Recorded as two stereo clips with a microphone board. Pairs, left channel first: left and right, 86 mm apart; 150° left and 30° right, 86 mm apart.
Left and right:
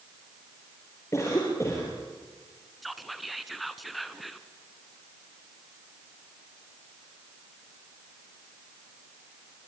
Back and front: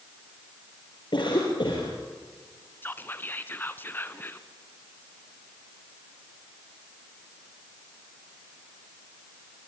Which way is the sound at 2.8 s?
Straight behind.